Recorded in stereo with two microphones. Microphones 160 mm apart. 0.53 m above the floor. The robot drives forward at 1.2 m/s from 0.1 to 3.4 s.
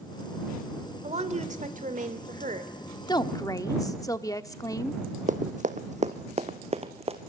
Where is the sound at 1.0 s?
40° right (ahead or behind), 2.5 m; by 2.7 s 50° right (ahead or behind), 2 m.